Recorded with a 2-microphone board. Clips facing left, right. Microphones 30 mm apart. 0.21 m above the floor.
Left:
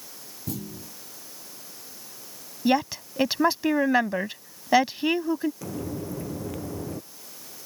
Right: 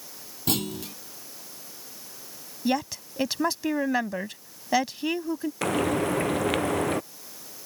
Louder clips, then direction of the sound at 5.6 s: Right 9 dB; 65° right (ahead or behind).